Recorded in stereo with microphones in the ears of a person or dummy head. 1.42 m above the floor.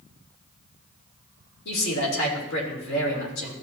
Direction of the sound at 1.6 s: 80° left.